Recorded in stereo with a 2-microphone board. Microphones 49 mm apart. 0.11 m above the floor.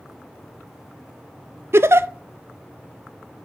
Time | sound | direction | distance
1.7 | a giggle | 65° right (ahead or behind) | 0.6 m